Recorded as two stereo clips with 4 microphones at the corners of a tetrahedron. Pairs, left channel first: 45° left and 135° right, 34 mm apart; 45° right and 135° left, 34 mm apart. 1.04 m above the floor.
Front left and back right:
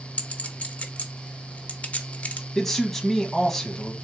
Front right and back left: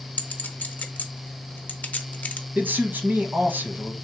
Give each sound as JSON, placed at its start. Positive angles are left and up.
{"t": 0.2, "sound": "a clink", "azimuth_deg": -5, "distance_m": 0.6}
{"t": 2.5, "sound": "a man speaking", "azimuth_deg": 130, "distance_m": 1.0}